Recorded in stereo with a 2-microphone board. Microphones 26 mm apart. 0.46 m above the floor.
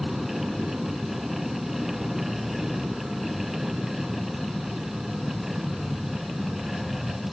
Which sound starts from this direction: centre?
An aircraft, at 0.0 s.